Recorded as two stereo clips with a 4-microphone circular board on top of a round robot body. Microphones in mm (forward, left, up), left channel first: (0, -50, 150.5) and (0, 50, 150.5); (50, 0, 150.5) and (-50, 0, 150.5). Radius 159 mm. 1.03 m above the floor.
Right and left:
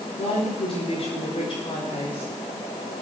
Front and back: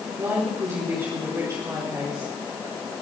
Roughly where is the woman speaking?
Behind right.